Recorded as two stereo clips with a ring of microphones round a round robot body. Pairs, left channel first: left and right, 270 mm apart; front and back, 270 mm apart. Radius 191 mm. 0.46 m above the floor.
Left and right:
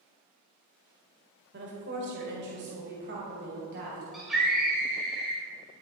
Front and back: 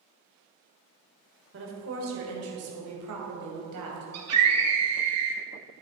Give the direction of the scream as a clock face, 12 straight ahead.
6 o'clock.